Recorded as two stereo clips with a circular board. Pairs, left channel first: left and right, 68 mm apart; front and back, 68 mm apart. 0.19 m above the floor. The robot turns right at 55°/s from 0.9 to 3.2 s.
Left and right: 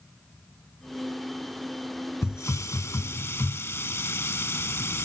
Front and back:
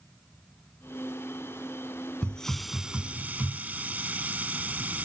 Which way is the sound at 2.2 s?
70° left.